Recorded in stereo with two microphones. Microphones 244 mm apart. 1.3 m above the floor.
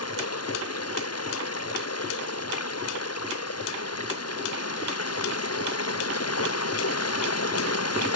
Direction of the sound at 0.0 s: 85° left.